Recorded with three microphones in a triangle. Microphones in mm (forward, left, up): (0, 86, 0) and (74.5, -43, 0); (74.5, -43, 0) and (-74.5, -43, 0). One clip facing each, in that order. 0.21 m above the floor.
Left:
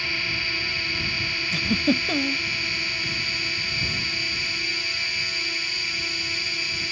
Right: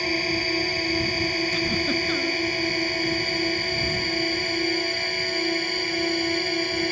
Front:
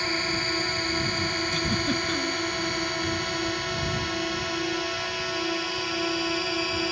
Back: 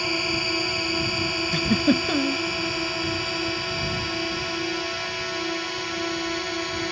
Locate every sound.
0.0 s a drone: 100° right; by 6.9 s 85° right
1.5 s a giggle: 160° left